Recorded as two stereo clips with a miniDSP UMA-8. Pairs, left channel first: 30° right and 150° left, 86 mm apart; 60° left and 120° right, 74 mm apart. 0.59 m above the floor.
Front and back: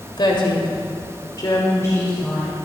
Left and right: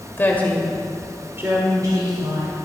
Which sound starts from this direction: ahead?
A woman speaking, at 0.2 s.